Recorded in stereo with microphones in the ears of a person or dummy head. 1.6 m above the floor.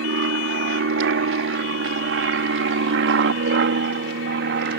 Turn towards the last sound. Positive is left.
turn(degrees=-60)  # may be behind; listen again after turning